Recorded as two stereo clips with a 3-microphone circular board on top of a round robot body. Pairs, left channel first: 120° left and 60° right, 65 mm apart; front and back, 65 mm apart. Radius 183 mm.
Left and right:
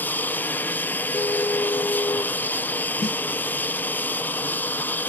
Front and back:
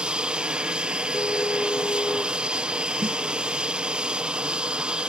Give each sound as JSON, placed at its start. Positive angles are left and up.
{"t": 0.0, "sound": "an aircraft", "azimuth_deg": 120}
{"t": 1.1, "sound": "a car horn", "azimuth_deg": 65}
{"t": 3.0, "sound": "a snare drum", "azimuth_deg": 125}